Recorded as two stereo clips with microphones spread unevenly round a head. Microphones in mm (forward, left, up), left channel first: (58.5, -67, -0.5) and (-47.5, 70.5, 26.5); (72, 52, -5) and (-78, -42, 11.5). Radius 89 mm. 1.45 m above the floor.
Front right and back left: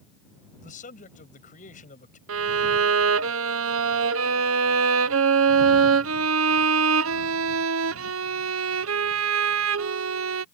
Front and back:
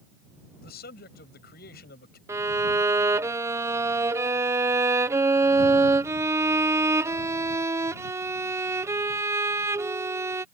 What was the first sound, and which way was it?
A man speaking, 5° right.